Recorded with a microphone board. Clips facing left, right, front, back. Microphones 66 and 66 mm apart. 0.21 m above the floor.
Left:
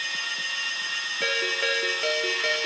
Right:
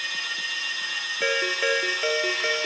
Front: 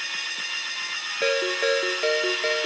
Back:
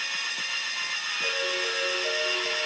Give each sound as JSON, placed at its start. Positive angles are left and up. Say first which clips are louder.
{"t": 1.2, "sound": "a ringtone", "louder": "right 3 dB, front 8 dB", "azimuth_deg": -10, "distance_m": 2.5}